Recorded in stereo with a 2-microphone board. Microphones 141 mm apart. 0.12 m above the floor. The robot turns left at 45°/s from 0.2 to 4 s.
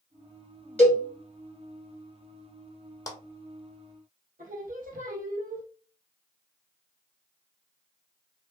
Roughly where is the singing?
Right.